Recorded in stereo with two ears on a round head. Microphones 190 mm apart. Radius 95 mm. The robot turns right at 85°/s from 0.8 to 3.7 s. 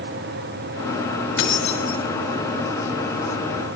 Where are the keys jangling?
125° left, 5.5 m; by 2.0 s 175° left, 5.5 m.